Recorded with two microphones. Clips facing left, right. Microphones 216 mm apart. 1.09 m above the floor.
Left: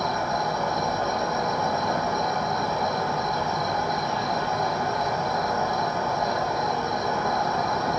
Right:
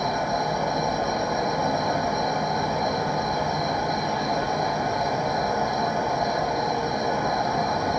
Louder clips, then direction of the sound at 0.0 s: Right 1 dB; 15° right (ahead or behind).